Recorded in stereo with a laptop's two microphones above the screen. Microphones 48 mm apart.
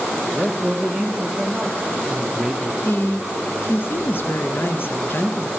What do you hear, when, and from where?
0.3 s a man speaking: centre (ahead or behind), 0.9 m
2.9 s a woman speaking: 45° left (ahead or behind), 0.5 m